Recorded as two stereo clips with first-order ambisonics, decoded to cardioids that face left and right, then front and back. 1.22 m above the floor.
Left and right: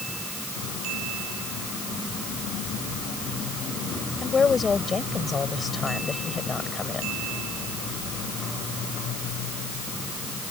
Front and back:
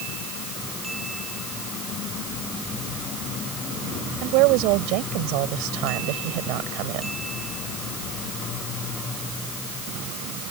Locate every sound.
4.2 s a woman speaking: 165° left